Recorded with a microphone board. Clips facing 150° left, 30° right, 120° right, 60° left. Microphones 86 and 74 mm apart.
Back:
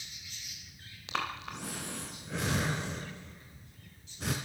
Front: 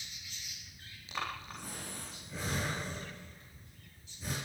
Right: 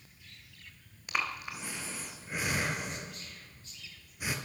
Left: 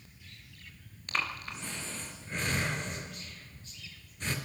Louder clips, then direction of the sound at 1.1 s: Back 4 dB, even; 160° left.